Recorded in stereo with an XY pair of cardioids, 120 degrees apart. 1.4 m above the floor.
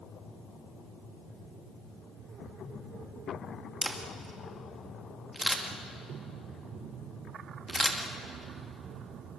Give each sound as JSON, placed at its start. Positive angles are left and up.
{"t": 3.8, "sound": "a camera shutter", "azimuth_deg": 5, "distance_m": 2.5}